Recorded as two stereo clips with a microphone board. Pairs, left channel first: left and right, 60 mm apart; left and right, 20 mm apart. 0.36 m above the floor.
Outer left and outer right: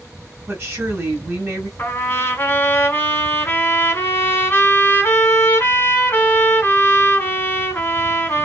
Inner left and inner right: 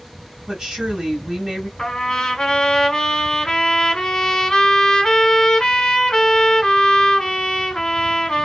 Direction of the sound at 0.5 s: 40° right (ahead or behind).